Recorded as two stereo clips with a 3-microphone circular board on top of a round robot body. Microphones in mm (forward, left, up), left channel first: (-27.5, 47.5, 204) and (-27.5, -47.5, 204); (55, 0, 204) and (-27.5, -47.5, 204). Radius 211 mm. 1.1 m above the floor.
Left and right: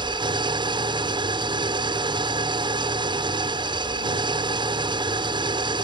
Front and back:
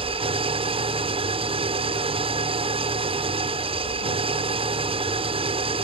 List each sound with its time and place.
0.0 s an engine running: 130° right